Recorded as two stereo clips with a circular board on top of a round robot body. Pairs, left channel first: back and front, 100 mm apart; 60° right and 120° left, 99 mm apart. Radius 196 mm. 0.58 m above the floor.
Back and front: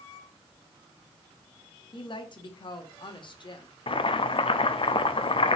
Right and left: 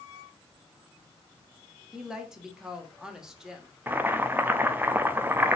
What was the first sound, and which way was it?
A woman speaking, 155° right.